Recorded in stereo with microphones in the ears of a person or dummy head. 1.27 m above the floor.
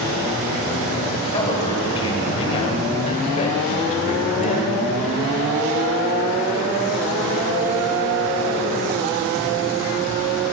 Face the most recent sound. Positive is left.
turn(degrees=45)  # may be behind; listen again after turning